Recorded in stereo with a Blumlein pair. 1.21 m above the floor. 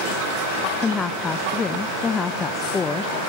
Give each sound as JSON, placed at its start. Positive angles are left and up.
{"t": 0.8, "sound": "a woman speaking", "azimuth_deg": 15, "distance_m": 0.7}